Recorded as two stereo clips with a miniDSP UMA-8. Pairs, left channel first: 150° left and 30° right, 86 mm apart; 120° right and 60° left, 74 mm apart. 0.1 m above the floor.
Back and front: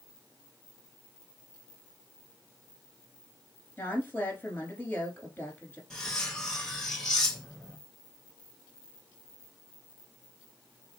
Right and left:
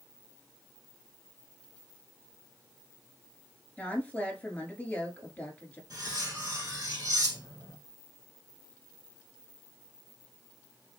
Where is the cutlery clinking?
70° left, 1.7 m.